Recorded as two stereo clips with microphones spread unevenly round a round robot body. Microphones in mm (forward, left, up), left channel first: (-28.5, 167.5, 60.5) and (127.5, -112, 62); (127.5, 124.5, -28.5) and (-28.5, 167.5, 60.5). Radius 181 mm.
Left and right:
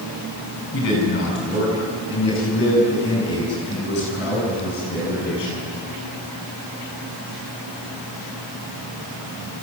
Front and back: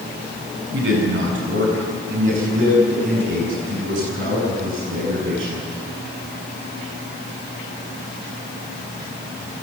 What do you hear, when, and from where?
0.7 s a man speaking: 175° left, 6.5 m; by 5.6 s straight behind, 10 m